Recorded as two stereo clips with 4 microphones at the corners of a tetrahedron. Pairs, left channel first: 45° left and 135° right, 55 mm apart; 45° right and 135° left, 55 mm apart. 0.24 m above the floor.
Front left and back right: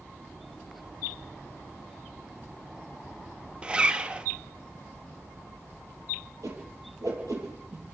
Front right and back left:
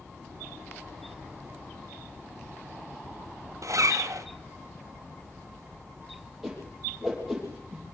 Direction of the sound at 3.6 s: 155° left.